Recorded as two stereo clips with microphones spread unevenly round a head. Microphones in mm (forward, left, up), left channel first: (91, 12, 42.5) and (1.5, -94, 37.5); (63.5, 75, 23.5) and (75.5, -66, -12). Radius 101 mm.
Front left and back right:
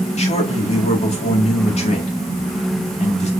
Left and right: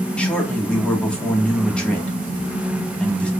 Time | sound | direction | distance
0.2 | a man speaking | 10° left | 2 m